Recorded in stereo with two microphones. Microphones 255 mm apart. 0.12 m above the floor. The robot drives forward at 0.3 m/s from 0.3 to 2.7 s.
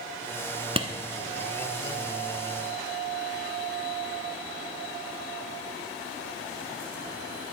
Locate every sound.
0.8 s a clap: 20° right (ahead or behind), 1.2 m